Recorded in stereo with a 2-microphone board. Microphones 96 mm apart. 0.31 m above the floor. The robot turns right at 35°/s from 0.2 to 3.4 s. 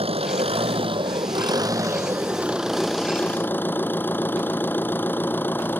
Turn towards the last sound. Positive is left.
turn(degrees=20)